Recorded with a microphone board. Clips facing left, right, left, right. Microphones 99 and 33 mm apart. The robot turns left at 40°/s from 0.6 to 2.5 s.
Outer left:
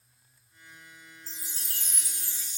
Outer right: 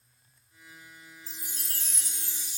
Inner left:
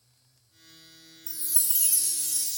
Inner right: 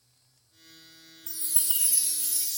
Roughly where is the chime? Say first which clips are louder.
Outer right 1 dB, inner right 1 dB; behind right.